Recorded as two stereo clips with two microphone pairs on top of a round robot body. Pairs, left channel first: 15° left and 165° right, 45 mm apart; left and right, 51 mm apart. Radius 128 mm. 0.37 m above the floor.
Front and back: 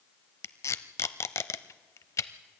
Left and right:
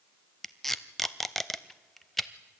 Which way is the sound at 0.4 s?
5° left.